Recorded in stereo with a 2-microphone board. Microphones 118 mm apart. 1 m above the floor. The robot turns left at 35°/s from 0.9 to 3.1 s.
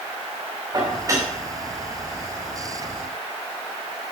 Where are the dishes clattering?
35° right (ahead or behind), 2.5 m; by 1.3 s 20° right (ahead or behind), 2.5 m.